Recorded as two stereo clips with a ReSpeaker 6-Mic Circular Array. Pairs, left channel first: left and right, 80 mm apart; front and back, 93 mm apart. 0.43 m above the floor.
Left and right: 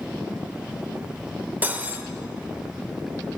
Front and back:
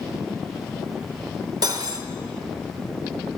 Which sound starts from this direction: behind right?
Cutlery clinking, at 1.6 s.